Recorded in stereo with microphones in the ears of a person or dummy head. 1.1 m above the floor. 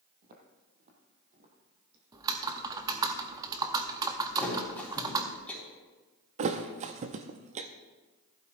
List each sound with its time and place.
0.2 s footsteps: 40° right (ahead or behind), 1.9 m; by 2.0 s 30° right (ahead or behind), 3 m
2.1 s typing on a keyboard: 15° right (ahead or behind), 0.7 m
4.4 s a thud: 10° left (ahead or behind), 3.5 m
6.4 s a thud: 35° right (ahead or behind), 0.6 m